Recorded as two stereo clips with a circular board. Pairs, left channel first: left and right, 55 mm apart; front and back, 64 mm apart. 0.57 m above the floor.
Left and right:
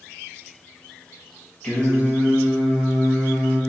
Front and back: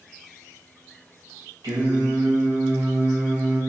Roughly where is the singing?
Behind.